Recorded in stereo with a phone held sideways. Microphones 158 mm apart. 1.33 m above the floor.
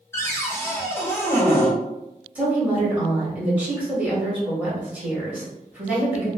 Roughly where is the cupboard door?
Centre.